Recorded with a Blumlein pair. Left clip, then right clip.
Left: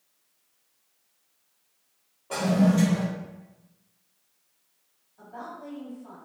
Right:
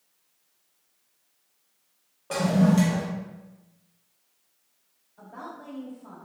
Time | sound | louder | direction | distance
2.3 | a toilet flushing | right 1 dB | 70° right | 1.0 m
5.2 | a woman speaking | left 1 dB | 40° right | 1.7 m